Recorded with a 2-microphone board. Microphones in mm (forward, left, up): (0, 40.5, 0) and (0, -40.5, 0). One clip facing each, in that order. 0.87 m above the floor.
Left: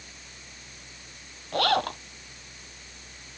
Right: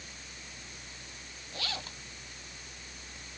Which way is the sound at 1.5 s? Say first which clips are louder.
Left 17 dB; 60° left (ahead or behind).